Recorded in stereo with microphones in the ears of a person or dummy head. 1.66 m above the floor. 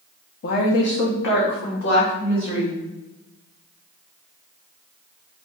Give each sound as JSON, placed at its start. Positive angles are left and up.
{"t": 0.4, "sound": "a woman speaking", "side_deg": 60, "distance_m": 0.8}